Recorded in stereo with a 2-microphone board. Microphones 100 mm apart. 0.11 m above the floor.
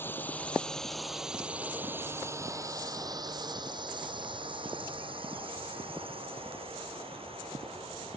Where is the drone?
20° left (ahead or behind); by 8.2 s 75° right (ahead or behind).